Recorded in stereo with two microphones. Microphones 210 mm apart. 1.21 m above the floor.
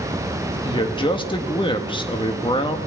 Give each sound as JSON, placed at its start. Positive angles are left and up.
{"t": 0.6, "sound": "a man speaking", "side_deg": 25, "distance_m": 1.4}